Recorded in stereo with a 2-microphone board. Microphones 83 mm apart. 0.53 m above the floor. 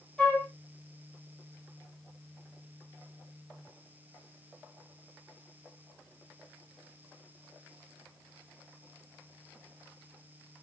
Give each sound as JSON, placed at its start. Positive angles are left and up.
{"t": 0.2, "sound": "a flute", "side_deg": 10, "distance_m": 1.3}